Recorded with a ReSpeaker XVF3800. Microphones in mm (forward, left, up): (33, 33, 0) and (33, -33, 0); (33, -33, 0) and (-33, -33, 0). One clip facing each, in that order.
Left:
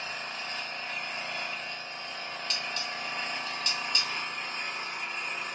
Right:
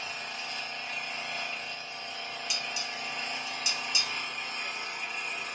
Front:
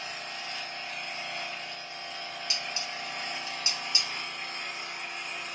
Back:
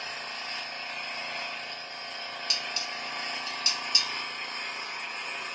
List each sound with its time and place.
0.0 s an engine running: 135° left, 1.9 m
2.5 s dishes clattering: 25° right, 0.7 m